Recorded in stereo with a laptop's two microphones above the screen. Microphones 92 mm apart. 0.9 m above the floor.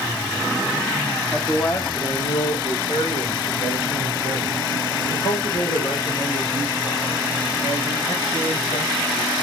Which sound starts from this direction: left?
A man speaking, at 1.3 s.